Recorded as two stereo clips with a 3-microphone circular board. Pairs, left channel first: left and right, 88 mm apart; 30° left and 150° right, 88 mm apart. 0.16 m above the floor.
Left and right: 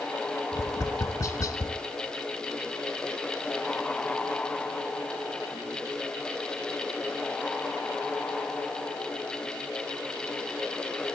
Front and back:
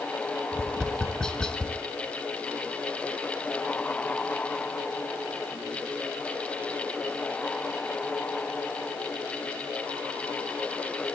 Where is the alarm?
No alarm in this recording.